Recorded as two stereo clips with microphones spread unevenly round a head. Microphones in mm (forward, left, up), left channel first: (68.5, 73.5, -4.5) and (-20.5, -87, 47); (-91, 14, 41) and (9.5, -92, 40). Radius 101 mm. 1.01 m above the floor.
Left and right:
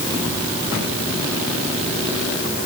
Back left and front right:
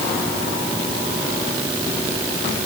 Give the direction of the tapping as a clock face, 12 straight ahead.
No tapping in this recording.